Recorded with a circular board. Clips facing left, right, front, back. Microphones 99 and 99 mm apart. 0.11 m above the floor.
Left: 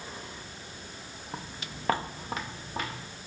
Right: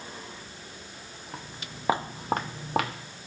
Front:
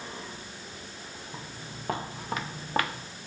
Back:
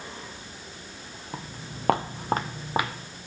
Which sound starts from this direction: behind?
Footsteps, at 1.3 s.